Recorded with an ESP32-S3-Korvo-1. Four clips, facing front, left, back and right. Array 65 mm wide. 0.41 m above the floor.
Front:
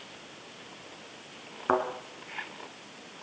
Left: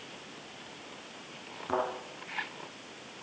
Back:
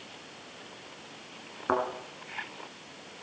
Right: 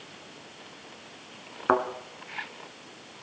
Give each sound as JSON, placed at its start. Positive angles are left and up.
{"t": 1.7, "sound": "a thud", "azimuth_deg": -80, "distance_m": 2.5}